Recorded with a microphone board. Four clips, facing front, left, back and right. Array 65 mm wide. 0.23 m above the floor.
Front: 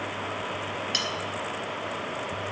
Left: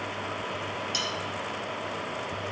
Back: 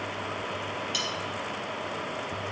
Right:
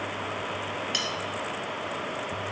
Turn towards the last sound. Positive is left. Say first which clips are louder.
# even, front 2 dB
turn(degrees=-40)